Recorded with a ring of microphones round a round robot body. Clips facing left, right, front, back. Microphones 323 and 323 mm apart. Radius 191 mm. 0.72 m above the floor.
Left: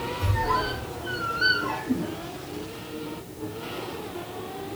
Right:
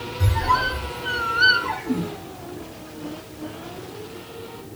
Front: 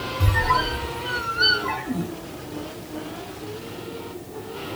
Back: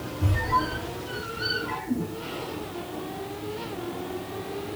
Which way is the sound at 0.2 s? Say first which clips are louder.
Right 4 dB, front 1 dB; 30° right.